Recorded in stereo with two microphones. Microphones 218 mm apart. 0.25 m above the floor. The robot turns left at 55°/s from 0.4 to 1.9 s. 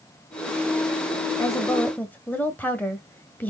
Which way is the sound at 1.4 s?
15° left (ahead or behind).